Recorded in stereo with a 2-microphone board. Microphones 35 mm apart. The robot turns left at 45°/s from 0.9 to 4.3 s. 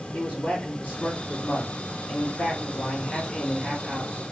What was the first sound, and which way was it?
A man speaking, 130° left.